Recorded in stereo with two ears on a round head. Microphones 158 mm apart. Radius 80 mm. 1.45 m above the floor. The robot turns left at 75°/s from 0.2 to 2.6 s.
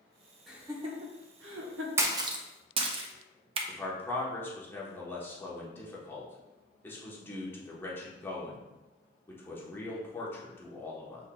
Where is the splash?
15° right (ahead or behind), 0.5 m; by 3.6 s 30° right (ahead or behind), 0.5 m.